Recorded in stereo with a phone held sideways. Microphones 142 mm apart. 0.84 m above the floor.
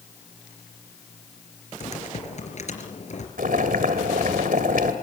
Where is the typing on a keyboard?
55° left (ahead or behind), 3.5 m.